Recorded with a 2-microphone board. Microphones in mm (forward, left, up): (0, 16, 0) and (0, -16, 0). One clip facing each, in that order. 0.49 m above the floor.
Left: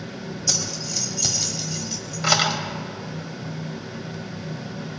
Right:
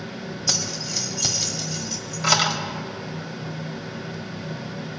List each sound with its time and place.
0.5 s keys jangling: 15° right (ahead or behind), 1.8 m; by 2.6 s 20° left (ahead or behind), 1.4 m